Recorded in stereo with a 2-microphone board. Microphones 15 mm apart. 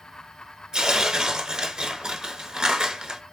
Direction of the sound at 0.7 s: 65° right (ahead or behind).